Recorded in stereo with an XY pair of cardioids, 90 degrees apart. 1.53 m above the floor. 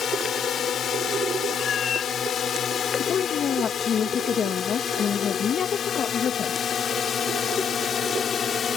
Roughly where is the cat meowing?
Ahead left.